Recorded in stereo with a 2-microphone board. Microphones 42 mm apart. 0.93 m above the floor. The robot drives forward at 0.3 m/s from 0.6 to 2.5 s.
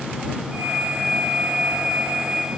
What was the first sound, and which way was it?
Only background noise.